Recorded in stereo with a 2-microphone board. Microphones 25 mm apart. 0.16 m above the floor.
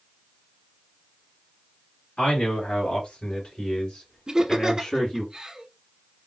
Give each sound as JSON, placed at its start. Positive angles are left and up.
{"t": 2.2, "sound": "a man speaking", "side_deg": 50, "distance_m": 3.0}
{"t": 4.3, "sound": "laughter", "side_deg": -30, "distance_m": 1.2}